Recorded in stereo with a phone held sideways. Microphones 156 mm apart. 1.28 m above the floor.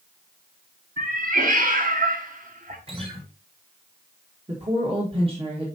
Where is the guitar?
35° right (ahead or behind), 1.9 m.